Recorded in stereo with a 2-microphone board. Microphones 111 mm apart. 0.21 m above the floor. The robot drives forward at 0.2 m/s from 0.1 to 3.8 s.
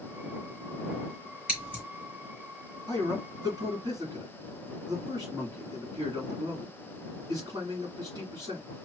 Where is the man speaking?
40° right (ahead or behind), 1.9 m.